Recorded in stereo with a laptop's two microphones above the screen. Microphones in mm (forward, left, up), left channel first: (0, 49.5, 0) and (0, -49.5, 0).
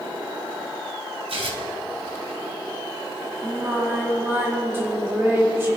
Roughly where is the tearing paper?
Right.